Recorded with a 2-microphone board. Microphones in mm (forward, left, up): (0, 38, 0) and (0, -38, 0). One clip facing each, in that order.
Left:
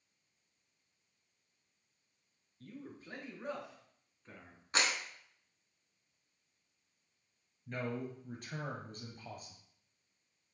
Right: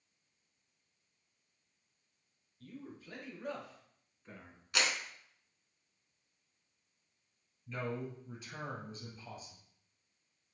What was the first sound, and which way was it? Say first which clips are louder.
A man speaking: even; 45° left (ahead or behind).